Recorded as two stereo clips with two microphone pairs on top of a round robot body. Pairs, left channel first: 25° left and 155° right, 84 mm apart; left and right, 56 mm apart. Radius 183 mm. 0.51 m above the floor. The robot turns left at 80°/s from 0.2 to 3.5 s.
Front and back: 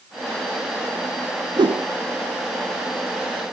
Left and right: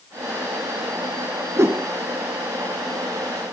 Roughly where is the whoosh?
Behind right.